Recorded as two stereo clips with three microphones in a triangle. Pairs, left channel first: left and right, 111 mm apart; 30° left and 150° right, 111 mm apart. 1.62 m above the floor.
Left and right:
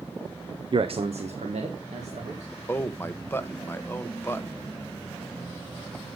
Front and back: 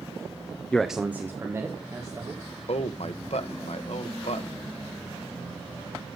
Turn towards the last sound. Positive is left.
turn(degrees=25)